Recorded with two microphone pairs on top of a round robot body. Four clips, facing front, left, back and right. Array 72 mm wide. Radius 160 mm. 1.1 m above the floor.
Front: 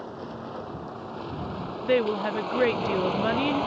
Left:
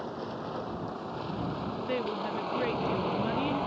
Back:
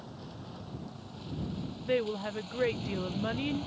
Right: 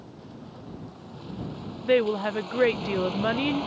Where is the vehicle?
50° left; by 3.7 s 5° left.